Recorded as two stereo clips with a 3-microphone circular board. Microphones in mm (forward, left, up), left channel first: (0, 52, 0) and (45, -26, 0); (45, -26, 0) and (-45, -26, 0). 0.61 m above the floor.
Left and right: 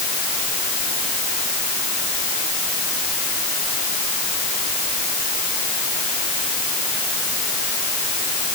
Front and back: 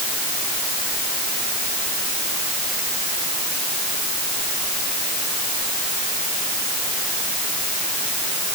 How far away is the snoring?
I don't hear snoring.